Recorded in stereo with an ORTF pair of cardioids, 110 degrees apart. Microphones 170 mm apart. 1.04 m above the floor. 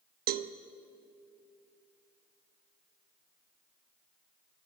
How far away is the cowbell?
About 0.9 m.